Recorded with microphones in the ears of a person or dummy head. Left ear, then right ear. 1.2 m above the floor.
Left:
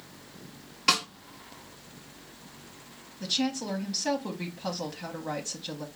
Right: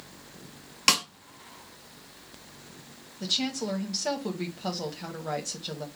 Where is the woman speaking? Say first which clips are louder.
Right 1 dB; 5° right (ahead or behind), 1.0 m.